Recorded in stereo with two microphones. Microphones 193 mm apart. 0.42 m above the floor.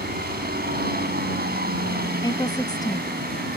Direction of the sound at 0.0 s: 55° right (ahead or behind).